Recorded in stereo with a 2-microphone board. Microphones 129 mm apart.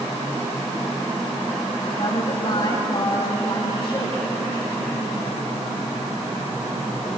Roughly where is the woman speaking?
Left.